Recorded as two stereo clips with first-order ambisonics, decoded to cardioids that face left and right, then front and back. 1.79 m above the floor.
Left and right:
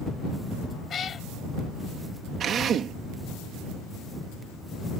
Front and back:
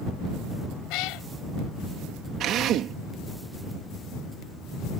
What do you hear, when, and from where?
0.9 s a cat meowing: 25° left
2.4 s a drill: 140° right